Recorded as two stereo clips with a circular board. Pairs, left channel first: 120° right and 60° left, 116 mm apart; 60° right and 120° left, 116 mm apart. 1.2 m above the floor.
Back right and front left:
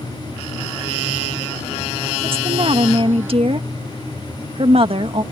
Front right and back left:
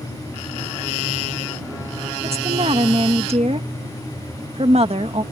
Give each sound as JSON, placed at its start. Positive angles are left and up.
{"t": 2.2, "sound": "a woman speaking", "azimuth_deg": 95}